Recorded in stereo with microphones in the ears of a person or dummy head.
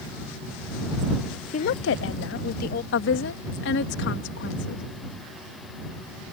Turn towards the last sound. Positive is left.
turn(degrees=75)  # may be behind; listen again after turning